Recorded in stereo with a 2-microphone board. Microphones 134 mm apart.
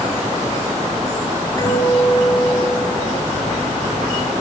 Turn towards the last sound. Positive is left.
turn(degrees=25)  # may be behind; listen again after turning